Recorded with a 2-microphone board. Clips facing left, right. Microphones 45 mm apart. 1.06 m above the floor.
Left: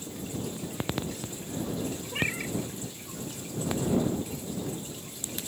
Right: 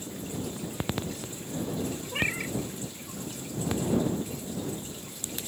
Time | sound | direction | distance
2.1 | a cat meowing | 10° right (ahead or behind) | ?